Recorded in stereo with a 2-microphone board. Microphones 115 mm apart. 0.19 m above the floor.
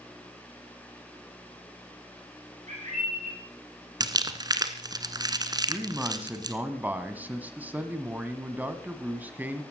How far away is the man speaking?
About 1.6 m.